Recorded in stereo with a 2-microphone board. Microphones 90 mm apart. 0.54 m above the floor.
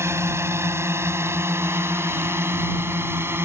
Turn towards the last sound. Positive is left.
turn(degrees=-25)  # may be behind; listen again after turning